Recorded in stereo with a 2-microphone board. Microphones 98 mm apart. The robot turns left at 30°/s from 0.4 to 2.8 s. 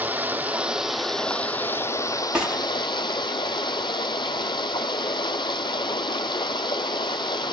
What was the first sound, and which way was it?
Running water, 160° right.